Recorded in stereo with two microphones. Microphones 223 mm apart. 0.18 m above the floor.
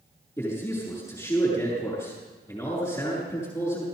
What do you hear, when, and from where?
0.4 s a man speaking: 15° left (ahead or behind), 7 m